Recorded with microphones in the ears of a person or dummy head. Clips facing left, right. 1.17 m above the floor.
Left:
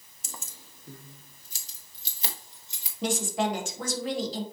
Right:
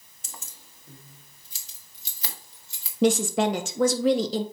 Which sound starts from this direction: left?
Keys jangling, at 0.2 s.